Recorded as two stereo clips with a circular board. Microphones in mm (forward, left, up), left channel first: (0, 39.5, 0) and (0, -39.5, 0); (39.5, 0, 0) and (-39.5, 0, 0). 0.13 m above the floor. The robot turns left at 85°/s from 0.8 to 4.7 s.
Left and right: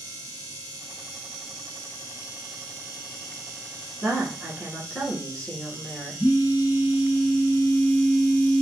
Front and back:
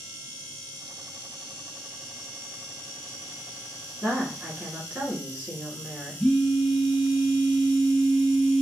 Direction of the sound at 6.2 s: 90° left.